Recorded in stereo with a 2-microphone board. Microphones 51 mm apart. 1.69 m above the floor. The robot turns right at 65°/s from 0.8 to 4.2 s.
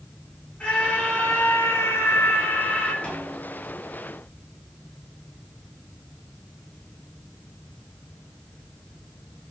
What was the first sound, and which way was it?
A scream, 25° left.